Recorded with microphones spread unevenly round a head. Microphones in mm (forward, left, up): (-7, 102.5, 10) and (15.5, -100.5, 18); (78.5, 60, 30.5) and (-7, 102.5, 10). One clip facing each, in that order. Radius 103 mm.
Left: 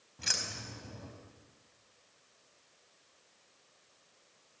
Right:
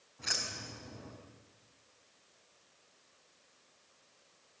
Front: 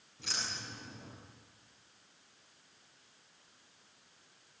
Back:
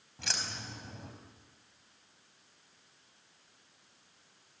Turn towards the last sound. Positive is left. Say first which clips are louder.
# even, back 2 dB
turn(degrees=145)